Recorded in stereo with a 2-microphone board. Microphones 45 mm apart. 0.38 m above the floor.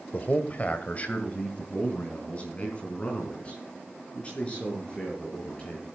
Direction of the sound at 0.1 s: 35° left (ahead or behind).